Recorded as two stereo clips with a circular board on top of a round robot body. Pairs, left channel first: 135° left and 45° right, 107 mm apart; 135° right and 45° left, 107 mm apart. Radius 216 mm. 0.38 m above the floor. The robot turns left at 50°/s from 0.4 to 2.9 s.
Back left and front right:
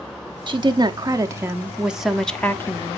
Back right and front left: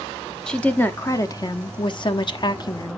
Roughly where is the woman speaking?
Ahead right.